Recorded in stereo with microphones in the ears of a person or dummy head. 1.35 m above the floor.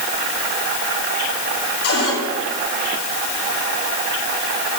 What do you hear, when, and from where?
1.8 s a cupboard door: 85° left, 6.5 m